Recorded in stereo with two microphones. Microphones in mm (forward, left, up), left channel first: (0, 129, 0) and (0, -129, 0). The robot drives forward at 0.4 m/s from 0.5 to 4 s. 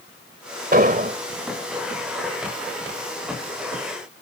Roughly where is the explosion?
Right.